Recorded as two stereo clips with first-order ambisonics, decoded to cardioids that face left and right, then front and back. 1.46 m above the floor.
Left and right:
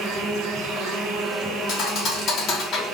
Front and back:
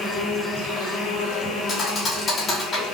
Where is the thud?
50° left, 1.2 m.